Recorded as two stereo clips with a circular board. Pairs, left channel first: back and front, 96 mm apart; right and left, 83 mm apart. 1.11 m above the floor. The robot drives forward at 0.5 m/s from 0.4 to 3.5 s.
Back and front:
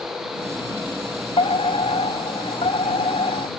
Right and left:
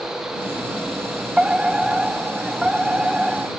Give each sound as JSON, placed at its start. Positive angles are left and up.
{"t": 1.4, "sound": "a fire alarm", "azimuth_deg": 170}